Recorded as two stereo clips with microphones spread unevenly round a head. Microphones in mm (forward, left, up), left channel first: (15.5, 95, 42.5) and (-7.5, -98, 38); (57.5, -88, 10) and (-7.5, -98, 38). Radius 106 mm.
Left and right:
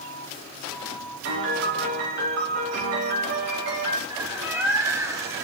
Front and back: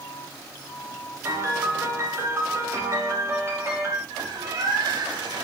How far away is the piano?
About 2 m.